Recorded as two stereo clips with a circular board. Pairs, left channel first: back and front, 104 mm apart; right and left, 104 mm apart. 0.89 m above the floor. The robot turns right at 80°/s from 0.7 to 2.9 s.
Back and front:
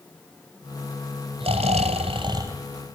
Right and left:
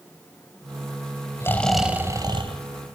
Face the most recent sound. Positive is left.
turn(degrees=90)